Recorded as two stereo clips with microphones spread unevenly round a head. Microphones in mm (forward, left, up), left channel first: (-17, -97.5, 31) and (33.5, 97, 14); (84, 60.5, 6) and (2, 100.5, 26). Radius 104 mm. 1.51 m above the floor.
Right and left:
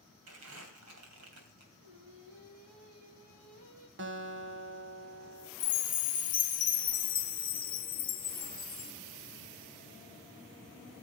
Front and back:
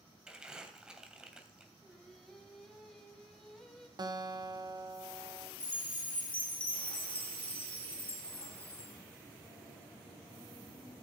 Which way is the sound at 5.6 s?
120° right.